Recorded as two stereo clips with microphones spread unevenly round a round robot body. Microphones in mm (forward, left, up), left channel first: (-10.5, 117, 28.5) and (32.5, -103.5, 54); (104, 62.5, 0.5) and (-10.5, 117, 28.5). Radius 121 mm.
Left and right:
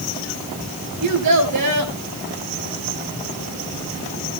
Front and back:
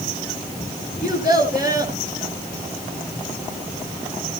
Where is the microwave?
I don't hear a microwave.